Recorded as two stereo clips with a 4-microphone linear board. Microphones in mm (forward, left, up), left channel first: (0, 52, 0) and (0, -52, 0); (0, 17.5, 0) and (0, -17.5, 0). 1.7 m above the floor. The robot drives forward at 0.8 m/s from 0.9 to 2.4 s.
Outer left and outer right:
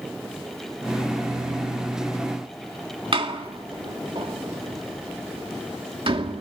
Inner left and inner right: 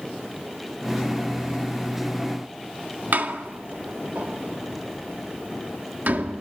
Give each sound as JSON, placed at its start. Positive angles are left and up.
{"t": 3.1, "sound": "a door slam", "side_deg": -60, "distance_m": 2.0}